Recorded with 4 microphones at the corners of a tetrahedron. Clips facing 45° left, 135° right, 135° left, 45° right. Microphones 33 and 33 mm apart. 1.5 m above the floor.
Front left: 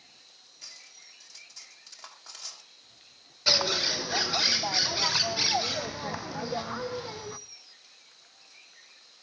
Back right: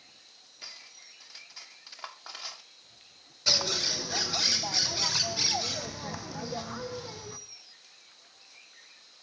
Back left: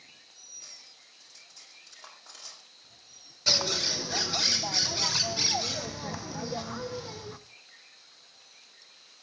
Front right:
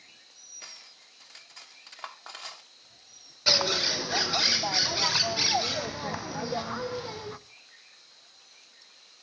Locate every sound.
0.6 s cutlery clinking: 70° right, 2 m
3.5 s a bird: straight ahead, 0.5 m